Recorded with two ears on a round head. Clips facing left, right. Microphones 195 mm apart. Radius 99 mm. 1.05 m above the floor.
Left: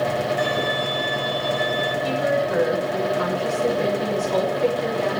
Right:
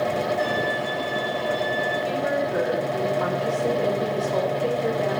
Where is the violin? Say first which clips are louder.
Left 1 dB; 40° left (ahead or behind), 4.5 m.